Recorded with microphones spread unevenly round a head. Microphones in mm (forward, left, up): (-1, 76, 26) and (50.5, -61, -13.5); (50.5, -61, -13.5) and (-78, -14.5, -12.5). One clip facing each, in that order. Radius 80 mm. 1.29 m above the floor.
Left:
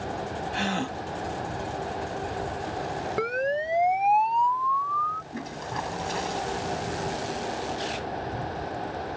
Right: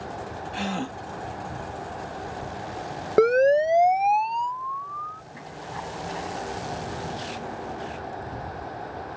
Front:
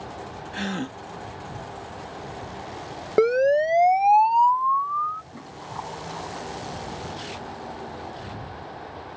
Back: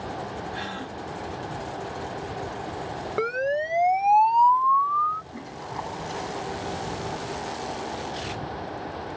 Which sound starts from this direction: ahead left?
A gasp, at 0.5 s.